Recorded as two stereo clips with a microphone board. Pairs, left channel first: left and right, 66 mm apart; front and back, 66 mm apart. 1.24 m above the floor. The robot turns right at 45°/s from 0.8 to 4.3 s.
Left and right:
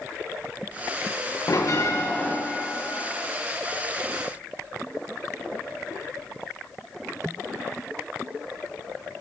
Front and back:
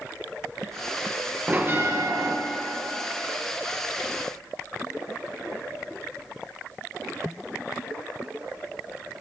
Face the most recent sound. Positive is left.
turn(degrees=-115)